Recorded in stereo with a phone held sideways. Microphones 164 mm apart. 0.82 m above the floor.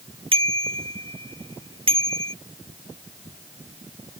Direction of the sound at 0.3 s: 35° right (ahead or behind).